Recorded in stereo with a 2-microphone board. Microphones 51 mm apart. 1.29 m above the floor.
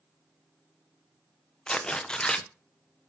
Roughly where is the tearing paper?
Centre.